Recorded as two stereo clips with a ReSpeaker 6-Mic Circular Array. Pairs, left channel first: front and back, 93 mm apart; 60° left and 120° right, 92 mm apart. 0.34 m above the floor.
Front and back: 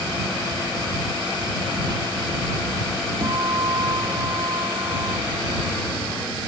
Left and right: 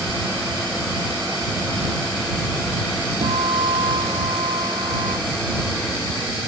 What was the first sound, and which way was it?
A guitar, 135° right.